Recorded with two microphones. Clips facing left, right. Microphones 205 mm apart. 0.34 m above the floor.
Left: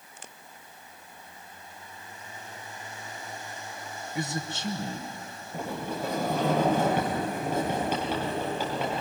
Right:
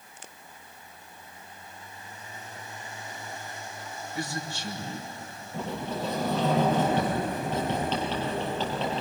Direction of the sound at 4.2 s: 20° left (ahead or behind).